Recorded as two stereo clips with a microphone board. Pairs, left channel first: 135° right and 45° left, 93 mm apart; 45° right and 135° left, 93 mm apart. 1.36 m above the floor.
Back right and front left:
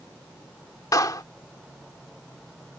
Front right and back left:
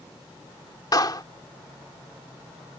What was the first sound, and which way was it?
A clap, 90° right.